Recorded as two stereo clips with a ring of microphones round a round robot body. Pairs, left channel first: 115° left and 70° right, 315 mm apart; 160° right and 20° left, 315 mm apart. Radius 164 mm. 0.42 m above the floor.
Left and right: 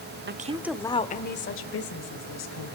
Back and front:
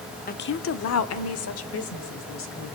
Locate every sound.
0.3 s a woman speaking: 105° right, 0.9 m; by 2.8 s 150° left, 2.5 m